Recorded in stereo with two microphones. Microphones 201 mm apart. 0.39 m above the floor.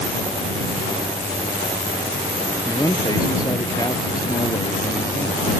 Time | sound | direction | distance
2.6 | a man speaking | 20° left (ahead or behind) | ?